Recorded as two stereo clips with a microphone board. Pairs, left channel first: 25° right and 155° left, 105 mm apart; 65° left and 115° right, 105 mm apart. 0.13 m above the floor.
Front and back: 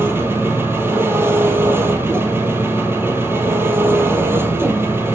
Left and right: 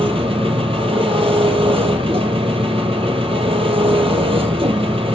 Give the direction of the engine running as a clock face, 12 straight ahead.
5 o'clock.